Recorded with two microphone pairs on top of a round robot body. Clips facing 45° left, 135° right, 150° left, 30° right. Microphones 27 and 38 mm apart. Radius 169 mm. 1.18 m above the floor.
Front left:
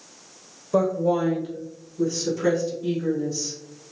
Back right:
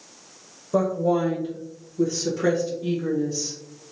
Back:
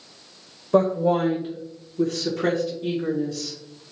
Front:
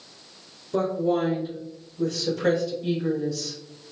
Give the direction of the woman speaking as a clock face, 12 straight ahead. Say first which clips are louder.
Even, back 4 dB; 8 o'clock.